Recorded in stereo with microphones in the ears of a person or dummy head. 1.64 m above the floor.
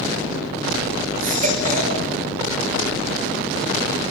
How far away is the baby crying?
About 5 m.